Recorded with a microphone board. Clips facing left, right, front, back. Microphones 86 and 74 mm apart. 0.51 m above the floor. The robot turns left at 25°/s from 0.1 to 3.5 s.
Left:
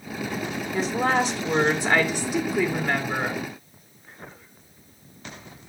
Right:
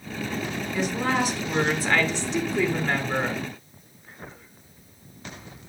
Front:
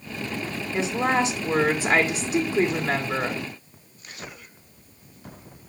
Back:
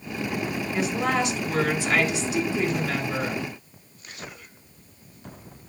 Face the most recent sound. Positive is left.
turn(degrees=-15)